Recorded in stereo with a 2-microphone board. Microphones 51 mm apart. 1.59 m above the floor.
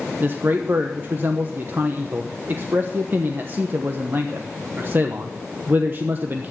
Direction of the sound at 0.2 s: 40° right (ahead or behind).